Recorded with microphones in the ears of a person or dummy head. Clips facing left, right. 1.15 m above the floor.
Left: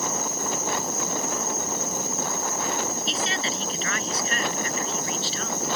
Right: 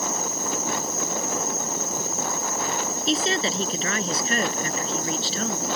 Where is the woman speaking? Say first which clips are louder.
Right 5 dB; 30° right (ahead or behind).